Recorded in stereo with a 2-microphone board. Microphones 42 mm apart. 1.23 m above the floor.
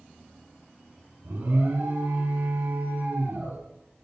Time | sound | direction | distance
1.2 | an alarm | 70° right (ahead or behind) | 5 m